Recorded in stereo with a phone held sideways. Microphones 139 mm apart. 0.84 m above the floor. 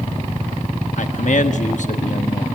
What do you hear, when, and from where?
1.0 s a man speaking: 60° left (ahead or behind), 1.2 m